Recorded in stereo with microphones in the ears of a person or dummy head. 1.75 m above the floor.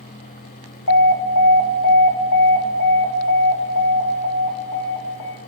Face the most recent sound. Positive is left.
turn(degrees=75)  # may be behind; listen again after turning